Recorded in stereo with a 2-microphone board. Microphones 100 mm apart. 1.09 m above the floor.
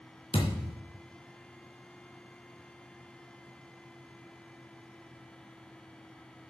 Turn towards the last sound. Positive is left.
turn(degrees=65)  # may be behind; listen again after turning